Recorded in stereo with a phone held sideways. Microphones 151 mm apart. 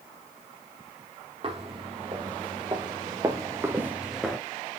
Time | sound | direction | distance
1.4 | footsteps | 40° right (ahead or behind) | 2.5 m